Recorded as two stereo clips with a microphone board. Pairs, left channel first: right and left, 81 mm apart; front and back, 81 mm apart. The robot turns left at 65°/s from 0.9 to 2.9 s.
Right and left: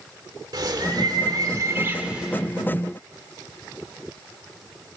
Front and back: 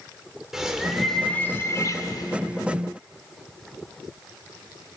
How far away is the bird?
About 2 m.